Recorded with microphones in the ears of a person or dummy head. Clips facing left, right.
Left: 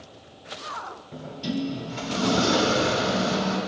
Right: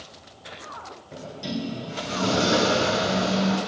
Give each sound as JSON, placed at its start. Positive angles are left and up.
{"t": 1.1, "sound": "a sliding door", "side_deg": -50, "distance_m": 4.0}